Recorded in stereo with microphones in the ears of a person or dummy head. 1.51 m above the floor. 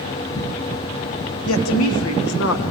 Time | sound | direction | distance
1.4 | a woman speaking | 70° left (ahead or behind) | 1.5 m